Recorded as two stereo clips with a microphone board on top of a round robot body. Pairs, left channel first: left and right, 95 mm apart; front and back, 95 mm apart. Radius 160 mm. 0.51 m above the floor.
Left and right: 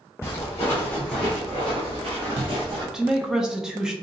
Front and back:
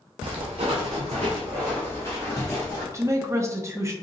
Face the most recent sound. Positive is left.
turn(degrees=-170)